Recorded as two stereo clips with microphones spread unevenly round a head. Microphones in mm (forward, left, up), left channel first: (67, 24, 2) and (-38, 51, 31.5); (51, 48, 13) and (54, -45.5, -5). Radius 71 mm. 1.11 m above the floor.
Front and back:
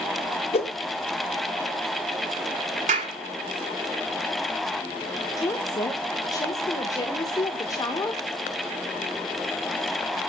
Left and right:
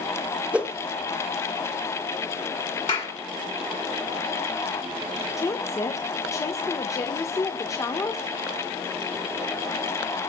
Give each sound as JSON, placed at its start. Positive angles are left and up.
{"t": 0.5, "sound": "a whoosh", "azimuth_deg": -15, "distance_m": 1.4}
{"t": 2.9, "sound": "a clap", "azimuth_deg": 155, "distance_m": 3.0}
{"t": 5.4, "sound": "a woman speaking", "azimuth_deg": 30, "distance_m": 1.3}